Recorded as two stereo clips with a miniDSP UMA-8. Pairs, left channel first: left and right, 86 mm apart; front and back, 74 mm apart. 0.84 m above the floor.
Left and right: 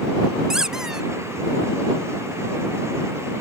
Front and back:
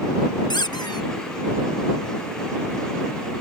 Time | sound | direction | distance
0.5 | a squeak | 5° right | ?